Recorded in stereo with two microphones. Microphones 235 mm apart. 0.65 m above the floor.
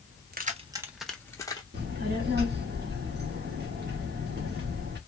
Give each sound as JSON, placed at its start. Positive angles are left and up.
{"t": 0.3, "sound": "keys jangling", "side_deg": -40, "distance_m": 0.6}
{"t": 1.7, "sound": "a child speaking", "side_deg": -45, "distance_m": 1.0}